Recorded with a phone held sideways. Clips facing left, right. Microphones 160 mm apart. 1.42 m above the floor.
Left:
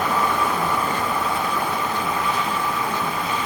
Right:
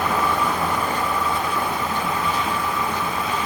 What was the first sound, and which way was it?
Only background noise.